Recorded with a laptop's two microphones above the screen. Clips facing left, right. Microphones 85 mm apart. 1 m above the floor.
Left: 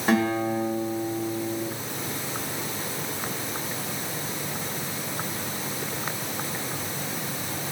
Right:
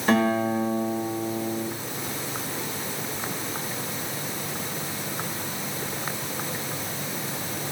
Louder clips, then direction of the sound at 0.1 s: Right 1 dB; 10° left (ahead or behind).